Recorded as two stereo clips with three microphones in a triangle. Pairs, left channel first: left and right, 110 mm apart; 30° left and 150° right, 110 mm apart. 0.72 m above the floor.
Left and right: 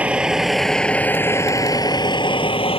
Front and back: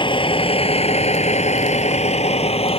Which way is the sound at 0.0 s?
10° right.